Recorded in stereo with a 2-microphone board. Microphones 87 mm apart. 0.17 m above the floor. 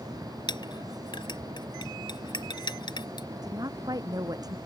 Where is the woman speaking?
45° right (ahead or behind).